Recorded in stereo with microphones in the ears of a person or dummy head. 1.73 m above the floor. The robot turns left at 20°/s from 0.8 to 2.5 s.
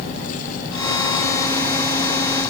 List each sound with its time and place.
Only background noise.